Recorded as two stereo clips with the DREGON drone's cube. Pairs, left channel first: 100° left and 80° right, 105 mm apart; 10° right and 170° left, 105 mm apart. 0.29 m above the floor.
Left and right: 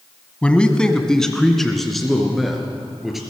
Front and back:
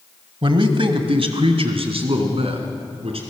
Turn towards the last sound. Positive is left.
turn(degrees=-165)